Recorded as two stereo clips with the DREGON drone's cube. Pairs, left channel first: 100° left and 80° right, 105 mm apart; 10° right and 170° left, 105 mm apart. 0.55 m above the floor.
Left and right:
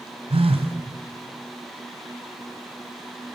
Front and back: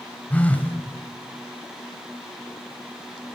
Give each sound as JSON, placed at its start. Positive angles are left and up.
{"t": 0.3, "sound": "a phone buzzing", "azimuth_deg": -85, "distance_m": 2.5}